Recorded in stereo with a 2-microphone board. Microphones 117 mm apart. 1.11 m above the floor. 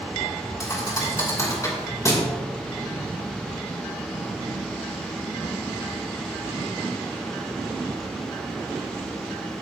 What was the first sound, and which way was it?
A thud, 30° left (ahead or behind).